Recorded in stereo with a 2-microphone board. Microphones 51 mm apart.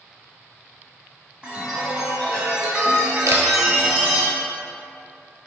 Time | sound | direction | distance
1.4 | a chime | 15° right (ahead or behind) | 1.2 m
3.3 | a camera shutter | 65° right (ahead or behind) | 0.8 m